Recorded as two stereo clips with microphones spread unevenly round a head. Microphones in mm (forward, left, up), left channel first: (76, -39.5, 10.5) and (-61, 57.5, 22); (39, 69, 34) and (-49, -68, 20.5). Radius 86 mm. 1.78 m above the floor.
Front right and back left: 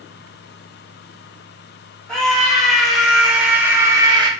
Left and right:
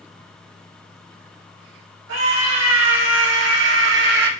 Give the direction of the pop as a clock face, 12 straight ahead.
No pop in this recording.